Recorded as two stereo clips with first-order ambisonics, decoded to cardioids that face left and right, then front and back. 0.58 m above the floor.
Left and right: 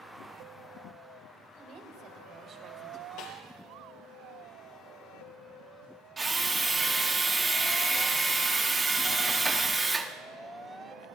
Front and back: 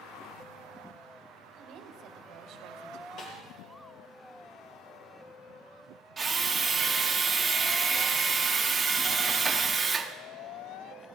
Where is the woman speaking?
130° right, 2.5 m; by 3.1 s 150° right, 1.9 m.